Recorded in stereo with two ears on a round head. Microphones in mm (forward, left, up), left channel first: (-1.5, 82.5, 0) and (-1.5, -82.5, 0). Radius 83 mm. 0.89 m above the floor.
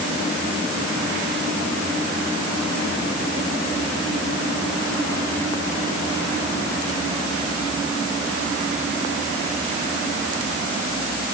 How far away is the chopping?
I don't hear chopping.